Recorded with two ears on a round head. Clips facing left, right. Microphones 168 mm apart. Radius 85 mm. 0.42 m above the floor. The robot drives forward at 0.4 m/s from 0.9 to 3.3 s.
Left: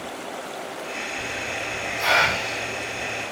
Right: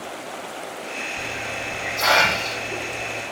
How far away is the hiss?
About 5 m.